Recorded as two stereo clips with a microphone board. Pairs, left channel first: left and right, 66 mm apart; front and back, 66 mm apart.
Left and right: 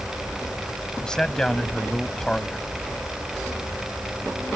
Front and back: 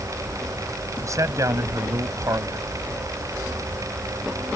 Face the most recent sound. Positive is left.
turn(degrees=165)